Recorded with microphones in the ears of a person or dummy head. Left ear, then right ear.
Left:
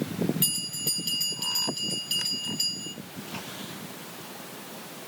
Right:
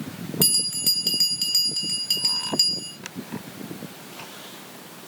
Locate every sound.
0.4 s a bell: 45° right (ahead or behind), 2 m